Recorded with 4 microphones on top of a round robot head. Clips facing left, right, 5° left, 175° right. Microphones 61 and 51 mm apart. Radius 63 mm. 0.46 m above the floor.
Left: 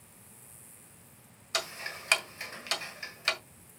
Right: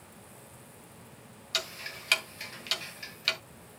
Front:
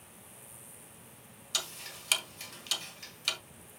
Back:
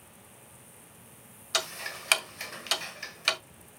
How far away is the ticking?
About 1.4 m.